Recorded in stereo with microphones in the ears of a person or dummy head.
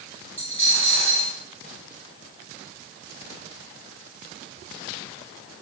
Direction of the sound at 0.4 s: 10° left (ahead or behind).